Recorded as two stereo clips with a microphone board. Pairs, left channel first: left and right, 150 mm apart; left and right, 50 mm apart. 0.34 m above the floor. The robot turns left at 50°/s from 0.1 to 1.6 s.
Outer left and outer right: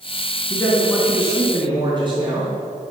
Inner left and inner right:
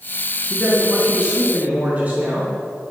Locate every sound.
0.5 s a man speaking: 20° left, 3.5 m; by 2.5 s 35° right, 3.5 m